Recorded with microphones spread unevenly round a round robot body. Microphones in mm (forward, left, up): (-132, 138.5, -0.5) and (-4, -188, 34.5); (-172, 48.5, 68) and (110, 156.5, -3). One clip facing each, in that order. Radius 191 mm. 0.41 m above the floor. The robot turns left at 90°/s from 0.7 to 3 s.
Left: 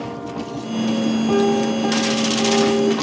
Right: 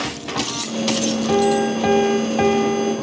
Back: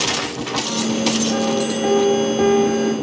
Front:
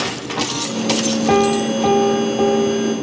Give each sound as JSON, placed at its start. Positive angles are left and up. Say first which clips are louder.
{"t": 1.3, "sound": "a piano", "louder": "right 2 dB, front 4 dB", "azimuth_deg": 20, "distance_m": 1.7}